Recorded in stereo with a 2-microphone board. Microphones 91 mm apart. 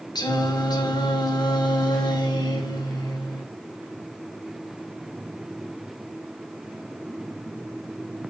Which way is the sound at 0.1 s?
50° left (ahead or behind).